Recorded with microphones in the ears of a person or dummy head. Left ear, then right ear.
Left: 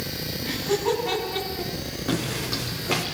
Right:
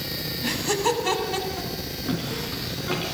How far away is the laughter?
About 8 m.